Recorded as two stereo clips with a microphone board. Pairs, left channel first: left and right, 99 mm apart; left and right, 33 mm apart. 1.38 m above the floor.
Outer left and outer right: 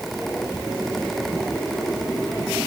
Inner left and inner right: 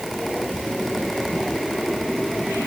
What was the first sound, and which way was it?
Only background noise.